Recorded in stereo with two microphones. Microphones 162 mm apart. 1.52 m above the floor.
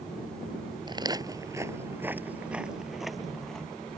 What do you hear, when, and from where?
0.9 s footsteps: 30° right (ahead or behind); by 4.0 s 5° left (ahead or behind)